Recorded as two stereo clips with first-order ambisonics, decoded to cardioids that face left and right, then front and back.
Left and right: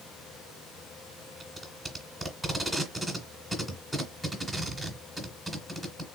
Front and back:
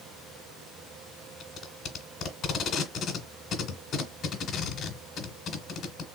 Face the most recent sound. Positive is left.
turn(degrees=0)